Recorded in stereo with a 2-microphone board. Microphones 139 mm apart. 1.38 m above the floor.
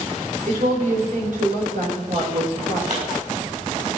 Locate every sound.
0.5 s a woman speaking: 65° right (ahead or behind), 4.5 m
2.9 s a pop: 55° right (ahead or behind), 5 m